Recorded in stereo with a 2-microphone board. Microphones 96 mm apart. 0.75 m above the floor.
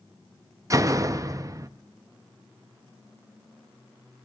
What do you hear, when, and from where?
0.7 s a door slam: 35° right (ahead or behind), 0.6 m